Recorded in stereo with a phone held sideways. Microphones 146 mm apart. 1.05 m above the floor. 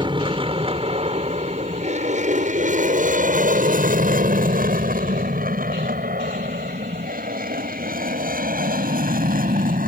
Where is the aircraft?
35° right (ahead or behind); by 9.9 s 70° right (ahead or behind).